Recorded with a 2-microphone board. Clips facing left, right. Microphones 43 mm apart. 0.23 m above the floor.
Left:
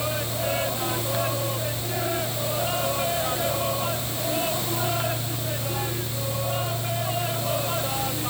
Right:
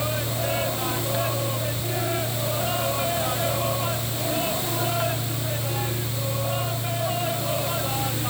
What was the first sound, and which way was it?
Only background noise.